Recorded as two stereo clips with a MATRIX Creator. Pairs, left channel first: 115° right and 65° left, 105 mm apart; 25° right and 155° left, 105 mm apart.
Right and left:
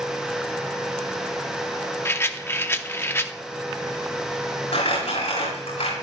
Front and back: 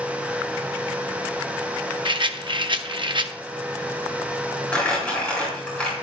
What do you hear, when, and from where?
2.0 s a rattle: 175° right, 0.7 m
4.7 s crumpling: 100° right, 7.5 m